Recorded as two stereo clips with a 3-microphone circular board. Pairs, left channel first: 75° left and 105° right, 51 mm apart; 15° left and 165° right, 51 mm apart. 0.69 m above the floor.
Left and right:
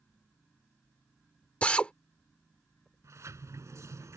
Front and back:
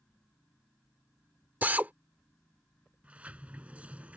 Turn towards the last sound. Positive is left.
turn(degrees=-100)